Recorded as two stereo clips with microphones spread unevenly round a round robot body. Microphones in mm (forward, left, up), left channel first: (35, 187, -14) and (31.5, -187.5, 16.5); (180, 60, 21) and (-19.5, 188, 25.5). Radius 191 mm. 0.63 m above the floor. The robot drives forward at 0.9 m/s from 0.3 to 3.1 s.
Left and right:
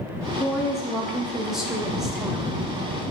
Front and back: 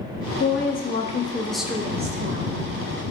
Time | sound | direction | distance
0.4 | a woman speaking | 5° left | 1.3 m